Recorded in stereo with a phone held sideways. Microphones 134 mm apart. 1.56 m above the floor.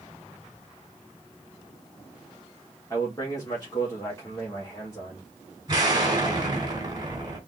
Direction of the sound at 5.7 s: 30° right (ahead or behind).